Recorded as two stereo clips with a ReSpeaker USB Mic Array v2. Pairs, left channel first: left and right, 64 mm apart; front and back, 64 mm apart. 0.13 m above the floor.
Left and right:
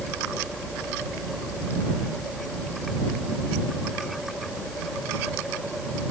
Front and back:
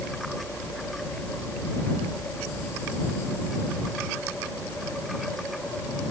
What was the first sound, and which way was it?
Only background noise.